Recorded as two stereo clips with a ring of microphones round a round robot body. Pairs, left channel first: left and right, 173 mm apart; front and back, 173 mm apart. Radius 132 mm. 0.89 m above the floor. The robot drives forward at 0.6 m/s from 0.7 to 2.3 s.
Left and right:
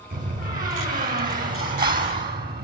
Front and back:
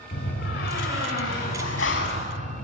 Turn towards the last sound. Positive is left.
turn(degrees=-60)